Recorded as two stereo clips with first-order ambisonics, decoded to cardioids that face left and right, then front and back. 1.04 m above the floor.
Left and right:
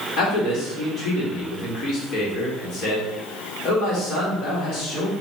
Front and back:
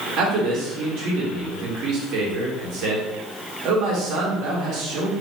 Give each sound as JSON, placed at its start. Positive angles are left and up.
{"t": 0.2, "sound": "a man speaking", "azimuth_deg": 140, "distance_m": 1.4}